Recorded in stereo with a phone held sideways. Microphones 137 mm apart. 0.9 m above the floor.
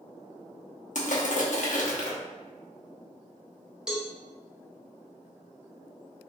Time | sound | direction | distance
0.9 | crushing | 65° left (ahead or behind) | 0.8 m
3.9 | a cowbell | 5° right (ahead or behind) | 0.7 m